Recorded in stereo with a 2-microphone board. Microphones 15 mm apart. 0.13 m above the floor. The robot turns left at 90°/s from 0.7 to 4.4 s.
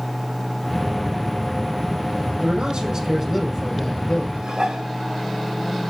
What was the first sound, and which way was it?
A man speaking, 85° right.